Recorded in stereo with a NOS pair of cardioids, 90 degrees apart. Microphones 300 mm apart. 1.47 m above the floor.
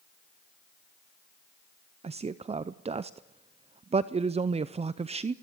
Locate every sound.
2.0 s a man speaking: 20° right, 0.5 m